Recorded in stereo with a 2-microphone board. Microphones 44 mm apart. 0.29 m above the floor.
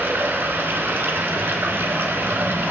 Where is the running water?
55° right (ahead or behind), 1.3 m.